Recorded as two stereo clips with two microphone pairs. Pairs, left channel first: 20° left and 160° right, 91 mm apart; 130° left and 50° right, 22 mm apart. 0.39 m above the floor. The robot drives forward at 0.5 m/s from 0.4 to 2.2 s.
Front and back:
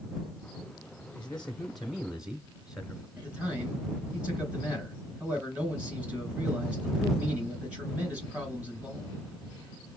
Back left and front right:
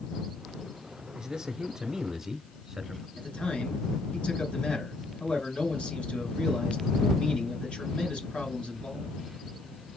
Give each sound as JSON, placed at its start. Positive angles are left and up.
{"t": 1.2, "sound": "a man speaking", "azimuth_deg": -40, "distance_m": 1.2}
{"t": 3.2, "sound": "a man speaking", "azimuth_deg": 120, "distance_m": 4.5}